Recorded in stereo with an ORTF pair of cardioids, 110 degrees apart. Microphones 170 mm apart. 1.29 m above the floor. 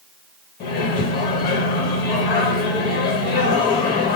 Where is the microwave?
70° left, 1.2 m.